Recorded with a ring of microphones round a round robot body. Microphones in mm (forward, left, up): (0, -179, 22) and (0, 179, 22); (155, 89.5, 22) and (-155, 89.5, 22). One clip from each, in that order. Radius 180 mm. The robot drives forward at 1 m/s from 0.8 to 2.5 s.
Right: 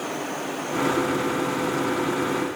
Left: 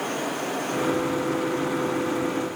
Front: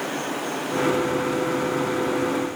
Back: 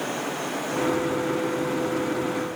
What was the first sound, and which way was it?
Only background noise.